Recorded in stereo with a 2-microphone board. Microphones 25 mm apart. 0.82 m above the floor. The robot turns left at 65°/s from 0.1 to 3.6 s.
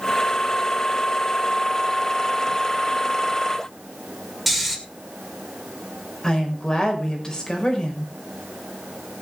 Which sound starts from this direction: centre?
Snoring, at 4.5 s.